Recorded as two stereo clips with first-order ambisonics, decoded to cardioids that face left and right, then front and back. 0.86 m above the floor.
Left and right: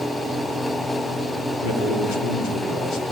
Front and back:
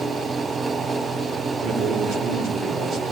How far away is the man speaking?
About 2.5 m.